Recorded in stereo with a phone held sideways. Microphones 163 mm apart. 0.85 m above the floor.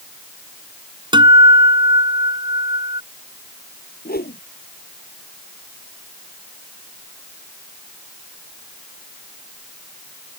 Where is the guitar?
30° right (ahead or behind).